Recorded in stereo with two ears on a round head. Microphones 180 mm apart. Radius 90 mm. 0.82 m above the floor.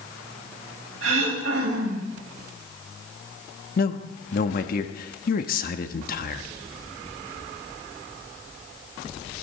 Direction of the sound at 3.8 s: 50° left (ahead or behind).